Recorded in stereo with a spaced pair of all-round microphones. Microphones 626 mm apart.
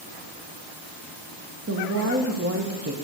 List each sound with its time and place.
1.7 s a woman speaking: 25° right (ahead or behind), 1.4 m